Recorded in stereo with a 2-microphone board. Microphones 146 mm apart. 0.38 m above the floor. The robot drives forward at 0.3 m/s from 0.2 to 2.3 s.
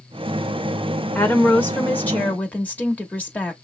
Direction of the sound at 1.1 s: 10° left (ahead or behind).